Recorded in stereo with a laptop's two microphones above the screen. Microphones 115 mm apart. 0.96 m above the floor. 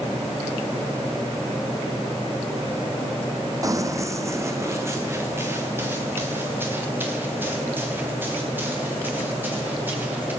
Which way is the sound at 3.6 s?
30° right (ahead or behind).